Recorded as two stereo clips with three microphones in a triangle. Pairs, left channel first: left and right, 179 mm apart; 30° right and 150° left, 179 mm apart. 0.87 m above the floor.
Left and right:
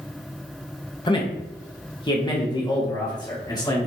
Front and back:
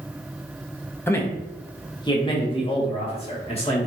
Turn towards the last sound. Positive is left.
turn(degrees=25)